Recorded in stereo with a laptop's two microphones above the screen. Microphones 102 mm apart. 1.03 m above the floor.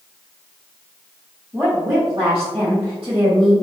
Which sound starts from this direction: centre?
A woman speaking, at 1.5 s.